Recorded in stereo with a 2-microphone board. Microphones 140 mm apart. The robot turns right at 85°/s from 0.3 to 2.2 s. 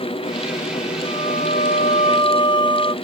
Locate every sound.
1.0 s a violin: 45° left; by 3.0 s 140° left